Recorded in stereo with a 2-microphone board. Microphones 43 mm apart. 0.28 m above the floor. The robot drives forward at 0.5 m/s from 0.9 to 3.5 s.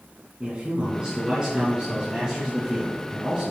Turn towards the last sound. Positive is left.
turn(degrees=-15)  # may be behind; listen again after turning